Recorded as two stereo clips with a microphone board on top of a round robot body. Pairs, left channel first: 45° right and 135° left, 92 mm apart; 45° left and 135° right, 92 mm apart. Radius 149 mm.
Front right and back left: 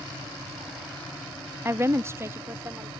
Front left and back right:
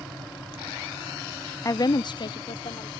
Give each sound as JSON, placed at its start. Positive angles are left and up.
{"t": 1.6, "sound": "a woman speaking", "azimuth_deg": 85}